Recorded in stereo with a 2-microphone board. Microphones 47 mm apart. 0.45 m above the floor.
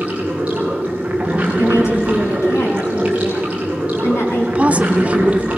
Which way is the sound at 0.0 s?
25° right (ahead or behind).